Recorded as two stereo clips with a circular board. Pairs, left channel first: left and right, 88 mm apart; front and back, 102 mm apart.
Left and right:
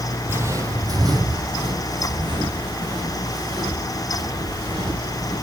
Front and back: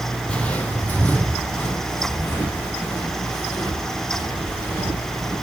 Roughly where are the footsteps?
Ahead right.